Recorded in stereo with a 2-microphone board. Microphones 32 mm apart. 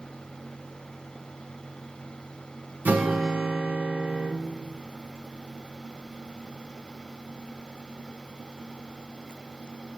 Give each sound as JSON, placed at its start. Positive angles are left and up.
{"t": 2.9, "sound": "a guitar", "side_deg": -80, "distance_m": 0.7}